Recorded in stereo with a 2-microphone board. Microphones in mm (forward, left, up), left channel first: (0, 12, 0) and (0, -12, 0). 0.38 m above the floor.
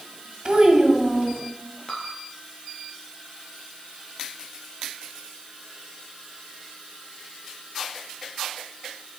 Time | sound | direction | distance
0.5 | a child speaking | 40° right (ahead or behind) | 1.4 m
1.9 | dripping | 35° left (ahead or behind) | 1.6 m